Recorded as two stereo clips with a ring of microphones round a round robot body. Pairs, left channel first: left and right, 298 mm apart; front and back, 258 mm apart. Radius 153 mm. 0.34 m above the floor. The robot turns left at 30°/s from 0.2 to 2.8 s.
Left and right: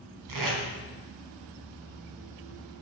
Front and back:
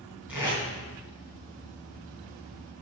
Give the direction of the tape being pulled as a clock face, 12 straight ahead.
3 o'clock.